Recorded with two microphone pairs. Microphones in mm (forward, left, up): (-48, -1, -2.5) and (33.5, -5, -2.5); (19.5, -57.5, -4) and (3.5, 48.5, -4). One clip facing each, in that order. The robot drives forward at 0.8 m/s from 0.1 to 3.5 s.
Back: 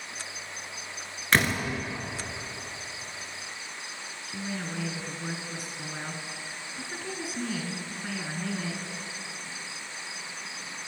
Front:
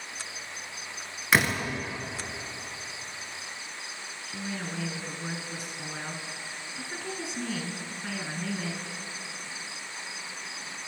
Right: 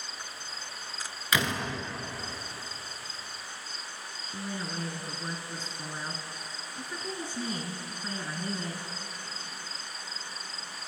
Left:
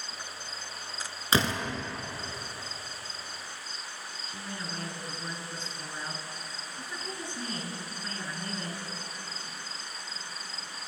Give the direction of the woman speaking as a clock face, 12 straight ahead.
4 o'clock.